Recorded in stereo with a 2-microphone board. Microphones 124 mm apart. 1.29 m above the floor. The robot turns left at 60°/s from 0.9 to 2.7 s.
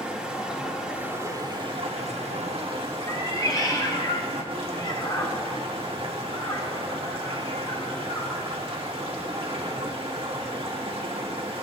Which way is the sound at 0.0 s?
10° right.